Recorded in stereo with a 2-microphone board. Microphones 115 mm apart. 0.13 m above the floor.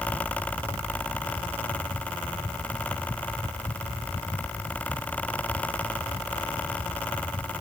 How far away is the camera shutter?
I don't hear a camera shutter.